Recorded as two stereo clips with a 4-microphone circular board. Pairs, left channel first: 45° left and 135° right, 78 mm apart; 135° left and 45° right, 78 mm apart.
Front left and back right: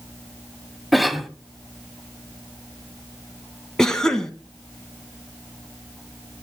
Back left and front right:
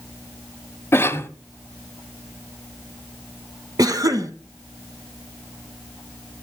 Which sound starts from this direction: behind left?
A cough, at 0.9 s.